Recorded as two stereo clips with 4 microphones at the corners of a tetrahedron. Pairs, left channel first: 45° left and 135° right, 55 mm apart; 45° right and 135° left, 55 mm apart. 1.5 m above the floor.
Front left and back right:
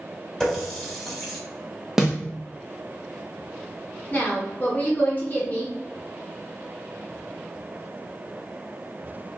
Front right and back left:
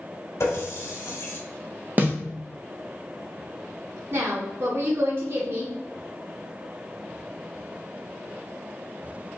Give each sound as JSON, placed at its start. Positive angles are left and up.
{"t": 0.4, "sound": "a running tap", "azimuth_deg": -35, "distance_m": 1.5}
{"t": 2.0, "sound": "a snare drum", "azimuth_deg": 155, "distance_m": 1.0}
{"t": 4.1, "sound": "a woman speaking", "azimuth_deg": 100, "distance_m": 1.2}